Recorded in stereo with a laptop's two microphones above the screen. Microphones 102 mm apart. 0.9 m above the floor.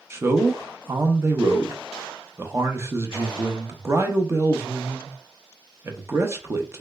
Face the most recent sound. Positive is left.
turn(degrees=-25)  # may be behind; listen again after turning